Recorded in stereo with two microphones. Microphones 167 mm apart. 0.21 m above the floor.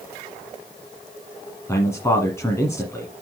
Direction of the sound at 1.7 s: 15° left (ahead or behind).